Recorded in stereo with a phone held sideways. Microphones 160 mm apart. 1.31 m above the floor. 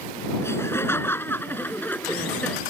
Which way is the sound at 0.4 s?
15° left (ahead or behind).